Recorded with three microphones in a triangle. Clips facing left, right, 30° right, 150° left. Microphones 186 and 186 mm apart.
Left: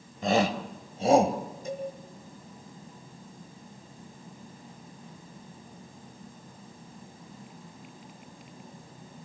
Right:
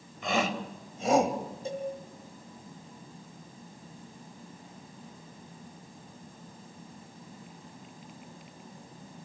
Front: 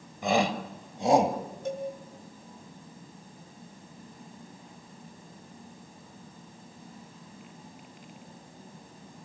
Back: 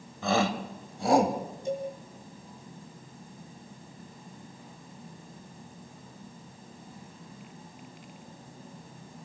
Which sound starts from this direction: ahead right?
A cowbell, at 1.6 s.